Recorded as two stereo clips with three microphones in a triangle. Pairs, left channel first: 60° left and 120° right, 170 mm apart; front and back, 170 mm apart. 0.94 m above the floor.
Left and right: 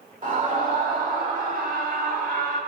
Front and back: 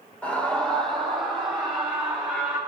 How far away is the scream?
About 3 m.